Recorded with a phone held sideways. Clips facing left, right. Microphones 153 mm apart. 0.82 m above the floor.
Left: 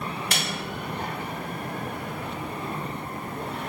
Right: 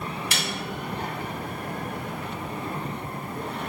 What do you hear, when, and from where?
0.3 s a snare drum: 60° left (ahead or behind), 1.3 m